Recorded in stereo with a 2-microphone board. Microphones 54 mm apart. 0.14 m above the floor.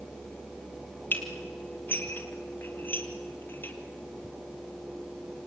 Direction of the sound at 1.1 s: 40° left (ahead or behind).